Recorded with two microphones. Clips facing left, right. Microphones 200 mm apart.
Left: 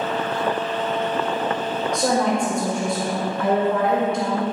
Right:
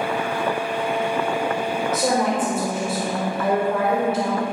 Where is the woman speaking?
5° right (ahead or behind), 1.6 m.